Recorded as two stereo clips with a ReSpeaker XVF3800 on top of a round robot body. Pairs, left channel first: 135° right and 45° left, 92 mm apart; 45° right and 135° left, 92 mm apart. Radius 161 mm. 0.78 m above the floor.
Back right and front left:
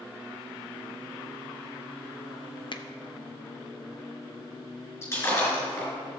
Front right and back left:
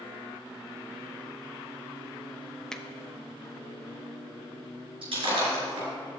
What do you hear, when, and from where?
2.7 s a finger snap: 130° right, 0.9 m
5.0 s breaking glass: 165° left, 4 m